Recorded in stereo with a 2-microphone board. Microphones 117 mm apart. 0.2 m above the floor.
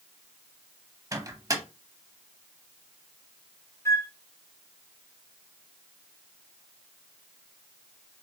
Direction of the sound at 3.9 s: 25° left (ahead or behind).